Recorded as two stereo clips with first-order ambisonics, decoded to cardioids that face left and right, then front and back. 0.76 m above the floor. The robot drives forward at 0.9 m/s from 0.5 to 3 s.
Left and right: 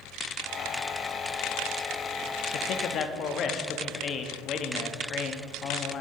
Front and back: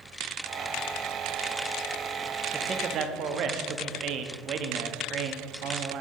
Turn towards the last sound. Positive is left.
turn(degrees=140)